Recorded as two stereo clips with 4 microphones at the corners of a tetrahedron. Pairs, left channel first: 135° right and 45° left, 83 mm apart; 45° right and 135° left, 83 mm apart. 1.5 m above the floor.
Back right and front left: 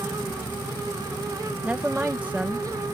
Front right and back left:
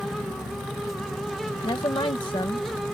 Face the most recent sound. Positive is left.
turn(degrees=-30)